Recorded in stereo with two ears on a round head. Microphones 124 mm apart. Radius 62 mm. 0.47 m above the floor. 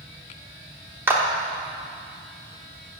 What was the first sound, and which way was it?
A clap, 15° right (ahead or behind).